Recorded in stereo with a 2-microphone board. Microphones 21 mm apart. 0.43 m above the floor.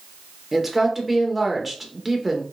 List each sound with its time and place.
0.5 s a woman speaking: 10° right (ahead or behind), 0.9 m